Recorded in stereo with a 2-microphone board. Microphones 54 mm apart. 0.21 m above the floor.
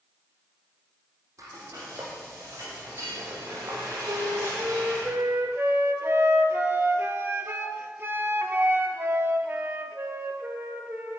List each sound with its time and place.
1.4 s frying: 85° right, 4.5 m
4.1 s a flute: 45° right (ahead or behind), 1.6 m